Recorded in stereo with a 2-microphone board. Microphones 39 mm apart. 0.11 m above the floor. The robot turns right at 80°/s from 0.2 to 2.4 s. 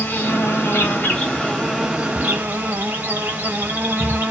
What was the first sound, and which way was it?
An insect, 70° left.